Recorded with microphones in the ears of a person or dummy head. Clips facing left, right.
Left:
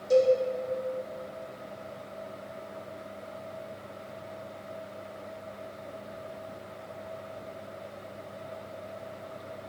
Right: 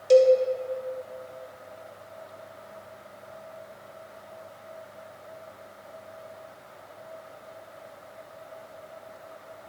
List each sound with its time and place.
0.1 s a cowbell: 75° right (ahead or behind), 1.2 m